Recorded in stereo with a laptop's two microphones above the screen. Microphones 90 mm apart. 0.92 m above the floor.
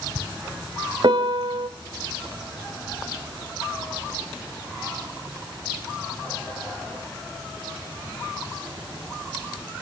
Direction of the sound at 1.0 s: 60° right (ahead or behind).